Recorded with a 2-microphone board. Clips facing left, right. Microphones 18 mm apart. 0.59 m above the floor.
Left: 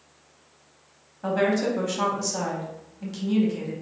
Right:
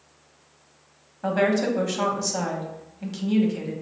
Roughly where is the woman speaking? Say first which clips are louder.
Right 1 dB; centre.